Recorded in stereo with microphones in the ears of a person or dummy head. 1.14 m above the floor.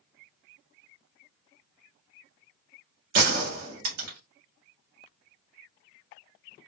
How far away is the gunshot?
About 1.4 m.